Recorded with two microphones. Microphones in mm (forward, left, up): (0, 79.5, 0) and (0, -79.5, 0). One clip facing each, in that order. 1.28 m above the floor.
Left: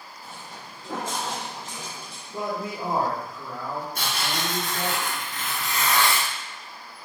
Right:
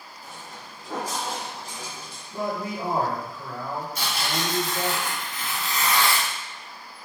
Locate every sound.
0.2 s footsteps: 25° left (ahead or behind), 1.9 m; by 2.2 s 15° left (ahead or behind), 1.4 m
2.3 s a man speaking: 20° left (ahead or behind), 1.3 m
4.0 s tearing paper: 55° left (ahead or behind), 1.3 m